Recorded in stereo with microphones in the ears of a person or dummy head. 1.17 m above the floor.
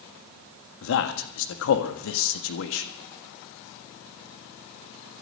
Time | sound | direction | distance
0.8 | a man speaking | 80° left | 1.5 m